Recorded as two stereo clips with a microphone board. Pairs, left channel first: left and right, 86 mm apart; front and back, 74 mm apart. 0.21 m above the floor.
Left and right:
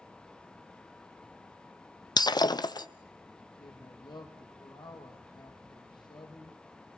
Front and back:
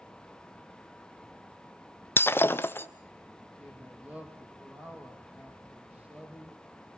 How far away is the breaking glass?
About 0.9 m.